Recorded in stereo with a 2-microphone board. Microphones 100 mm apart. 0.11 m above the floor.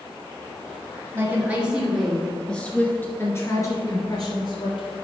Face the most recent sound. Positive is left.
turn(degrees=50)  # may be behind; listen again after turning